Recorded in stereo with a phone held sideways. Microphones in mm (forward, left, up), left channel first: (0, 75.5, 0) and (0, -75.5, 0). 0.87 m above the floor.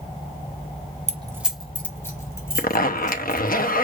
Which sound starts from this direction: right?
Keys jangling, at 1.1 s.